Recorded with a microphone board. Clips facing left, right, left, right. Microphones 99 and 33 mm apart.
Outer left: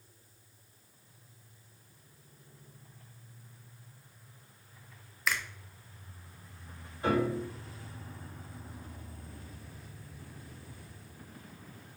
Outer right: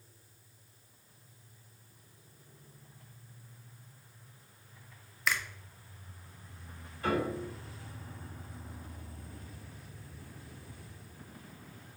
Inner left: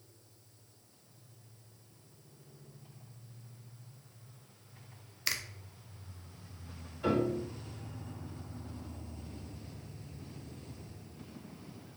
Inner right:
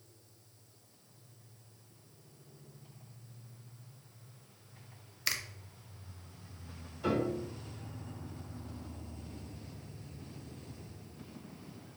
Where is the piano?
30° left (ahead or behind), 2 m.